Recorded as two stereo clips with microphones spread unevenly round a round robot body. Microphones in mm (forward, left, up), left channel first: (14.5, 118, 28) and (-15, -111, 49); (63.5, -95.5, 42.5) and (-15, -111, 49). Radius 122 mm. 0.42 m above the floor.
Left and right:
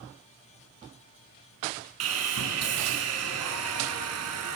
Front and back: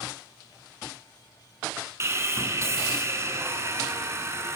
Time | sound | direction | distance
2.0 | sawing | 115° right | 5.5 m